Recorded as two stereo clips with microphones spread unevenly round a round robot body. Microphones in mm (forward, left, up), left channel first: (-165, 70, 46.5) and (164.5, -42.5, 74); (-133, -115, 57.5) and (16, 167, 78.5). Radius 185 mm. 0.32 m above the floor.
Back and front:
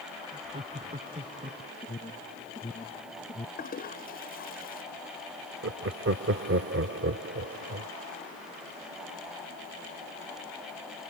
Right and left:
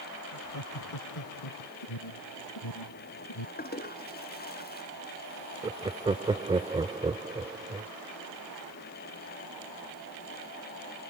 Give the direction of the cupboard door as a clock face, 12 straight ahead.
I don't hear a cupboard door.